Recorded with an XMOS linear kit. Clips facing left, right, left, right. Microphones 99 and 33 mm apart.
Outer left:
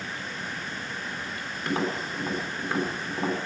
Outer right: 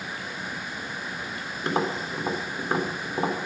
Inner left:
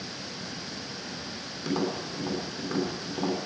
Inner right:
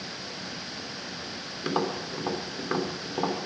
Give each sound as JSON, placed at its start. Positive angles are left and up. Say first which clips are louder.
{"t": 1.6, "sound": "tapping", "louder": "outer right 2 dB, inner right 1 dB", "side_deg": -25, "distance_m": 3.5}